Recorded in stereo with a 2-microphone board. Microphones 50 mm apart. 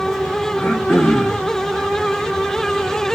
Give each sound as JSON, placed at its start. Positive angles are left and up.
{"t": 0.6, "sound": "throat clearing", "side_deg": 55, "distance_m": 1.1}